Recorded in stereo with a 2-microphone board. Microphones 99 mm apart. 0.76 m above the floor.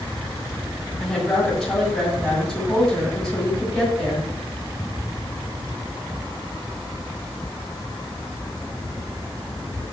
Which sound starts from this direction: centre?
A woman speaking, at 1.0 s.